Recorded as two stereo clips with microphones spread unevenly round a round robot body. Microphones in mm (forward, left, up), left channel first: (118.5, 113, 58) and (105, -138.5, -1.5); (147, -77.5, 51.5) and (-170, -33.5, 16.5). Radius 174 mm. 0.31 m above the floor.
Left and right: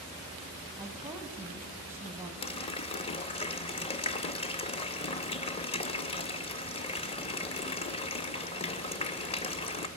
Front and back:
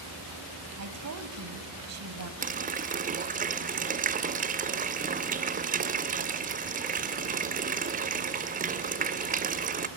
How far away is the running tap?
About 0.6 m.